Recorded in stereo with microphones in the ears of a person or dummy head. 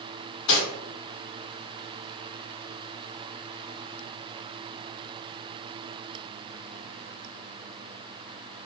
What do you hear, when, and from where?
0.5 s cutlery clinking: 65° left (ahead or behind), 1.1 m